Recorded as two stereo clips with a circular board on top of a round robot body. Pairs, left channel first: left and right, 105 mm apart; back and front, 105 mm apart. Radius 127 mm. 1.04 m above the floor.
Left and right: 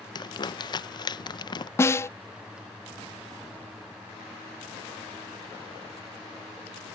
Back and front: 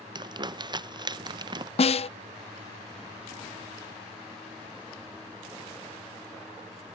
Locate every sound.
0.1 s crumpling: 45° left
1.8 s a snare drum: 155° left